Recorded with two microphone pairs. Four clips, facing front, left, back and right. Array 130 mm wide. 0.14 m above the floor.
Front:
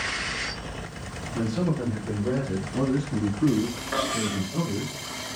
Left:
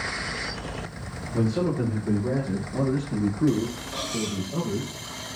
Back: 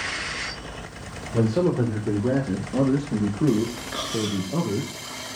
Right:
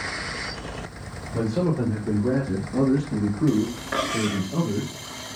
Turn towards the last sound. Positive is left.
turn(degrees=-70)